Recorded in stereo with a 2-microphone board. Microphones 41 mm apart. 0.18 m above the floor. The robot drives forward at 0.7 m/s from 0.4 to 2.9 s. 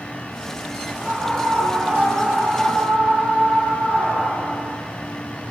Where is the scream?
10° left (ahead or behind), 6.5 m; by 4.8 s 5° left (ahead or behind), 7.5 m.